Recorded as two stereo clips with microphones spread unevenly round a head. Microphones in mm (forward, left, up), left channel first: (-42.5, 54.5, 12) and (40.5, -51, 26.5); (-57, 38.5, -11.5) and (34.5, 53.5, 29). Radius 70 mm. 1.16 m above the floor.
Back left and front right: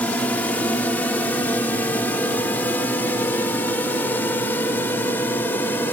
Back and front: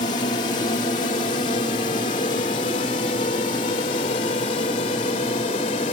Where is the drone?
155° right.